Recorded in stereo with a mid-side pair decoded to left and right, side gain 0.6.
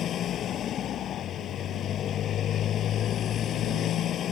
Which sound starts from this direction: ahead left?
A motorcycle, at 0.0 s.